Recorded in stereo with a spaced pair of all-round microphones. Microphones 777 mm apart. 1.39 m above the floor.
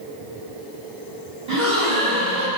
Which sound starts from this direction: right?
A gasp, at 1.5 s.